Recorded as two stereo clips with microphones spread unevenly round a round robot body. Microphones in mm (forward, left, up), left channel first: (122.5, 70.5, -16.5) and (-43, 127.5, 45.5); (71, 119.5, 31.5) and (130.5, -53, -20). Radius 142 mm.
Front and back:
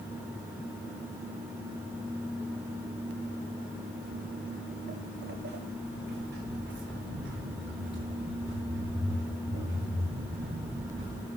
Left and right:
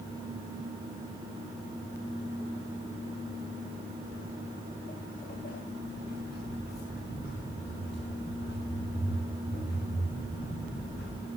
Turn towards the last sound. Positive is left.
turn(degrees=155)